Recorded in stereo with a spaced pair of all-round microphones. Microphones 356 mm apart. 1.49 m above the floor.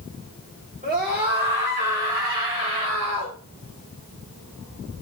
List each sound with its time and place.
0.8 s a scream: 25° right (ahead or behind), 4 m; by 3.4 s 40° right (ahead or behind), 7 m